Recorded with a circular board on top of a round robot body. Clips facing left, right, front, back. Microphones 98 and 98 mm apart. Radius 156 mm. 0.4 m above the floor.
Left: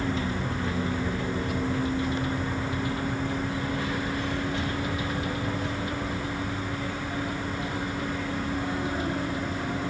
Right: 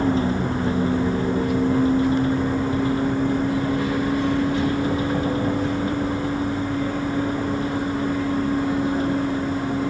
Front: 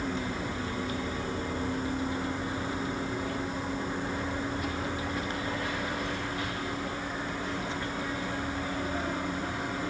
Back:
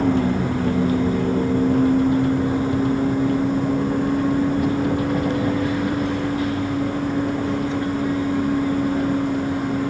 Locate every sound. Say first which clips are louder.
0.0 s a vehicle: right 8 dB, back 14 dB; 145° right